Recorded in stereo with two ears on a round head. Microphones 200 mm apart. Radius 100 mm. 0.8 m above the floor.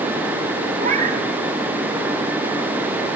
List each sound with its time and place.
0.8 s a cat meowing: 35° right (ahead or behind), 2 m